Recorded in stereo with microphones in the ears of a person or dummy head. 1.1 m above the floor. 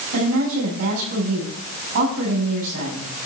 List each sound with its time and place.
0.1 s a woman speaking: 65° right (ahead or behind), 6.5 m